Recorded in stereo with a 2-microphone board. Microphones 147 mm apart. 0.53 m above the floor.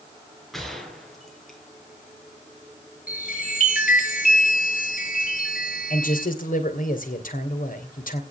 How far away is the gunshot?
About 4.5 m.